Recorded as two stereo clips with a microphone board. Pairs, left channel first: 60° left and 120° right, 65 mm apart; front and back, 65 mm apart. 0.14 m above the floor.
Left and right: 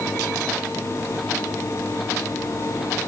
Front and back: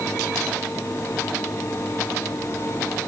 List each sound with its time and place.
Only background noise.